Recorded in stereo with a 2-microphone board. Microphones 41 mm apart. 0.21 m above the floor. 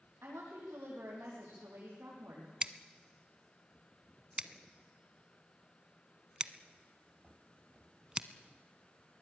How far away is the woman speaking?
About 9 m.